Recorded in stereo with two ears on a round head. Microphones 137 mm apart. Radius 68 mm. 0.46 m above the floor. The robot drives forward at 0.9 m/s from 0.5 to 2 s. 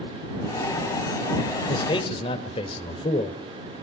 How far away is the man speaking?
About 2.5 m.